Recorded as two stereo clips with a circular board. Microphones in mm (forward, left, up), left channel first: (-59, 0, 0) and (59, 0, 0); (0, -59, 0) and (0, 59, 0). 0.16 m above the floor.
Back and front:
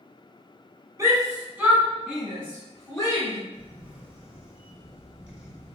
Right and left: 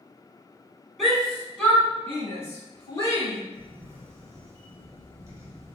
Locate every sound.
1.0 s a shout: 5° left, 1.3 m; by 3.4 s 130° right, 1.6 m
3.5 s a camera shutter: 70° left, 1.0 m